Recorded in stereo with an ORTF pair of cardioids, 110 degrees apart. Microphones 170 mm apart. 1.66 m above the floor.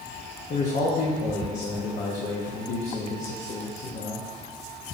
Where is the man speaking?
45° left, 0.9 m.